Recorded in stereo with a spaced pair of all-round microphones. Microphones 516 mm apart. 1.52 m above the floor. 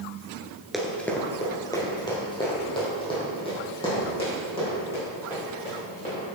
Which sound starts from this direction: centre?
Running footsteps, at 0.7 s.